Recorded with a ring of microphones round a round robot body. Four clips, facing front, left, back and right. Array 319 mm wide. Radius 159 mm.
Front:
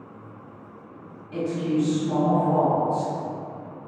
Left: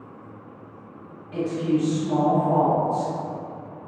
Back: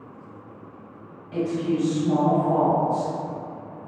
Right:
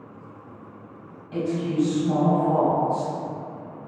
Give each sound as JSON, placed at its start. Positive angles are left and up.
{"t": 1.3, "sound": "a woman speaking", "azimuth_deg": -115, "distance_m": 1.7}